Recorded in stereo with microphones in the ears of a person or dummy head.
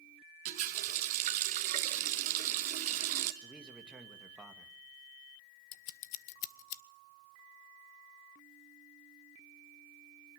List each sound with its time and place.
0.5 s a running tap: 45° right (ahead or behind), 1.4 m
3.4 s a man speaking: 5° right (ahead or behind), 2 m
5.7 s scissors: 45° left (ahead or behind), 0.7 m